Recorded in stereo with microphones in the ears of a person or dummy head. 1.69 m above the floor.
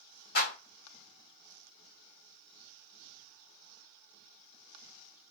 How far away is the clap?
About 2 m.